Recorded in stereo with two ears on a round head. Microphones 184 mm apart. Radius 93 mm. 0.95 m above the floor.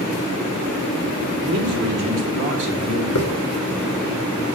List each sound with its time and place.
1.4 s a man speaking: 55° right (ahead or behind), 3.5 m; by 3.0 s 20° right (ahead or behind), 3 m
3.1 s a hiss: 65° left (ahead or behind), 1.6 m